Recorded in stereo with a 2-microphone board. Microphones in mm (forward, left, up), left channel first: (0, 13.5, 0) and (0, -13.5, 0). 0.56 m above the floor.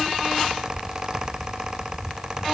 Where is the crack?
I don't hear a crack.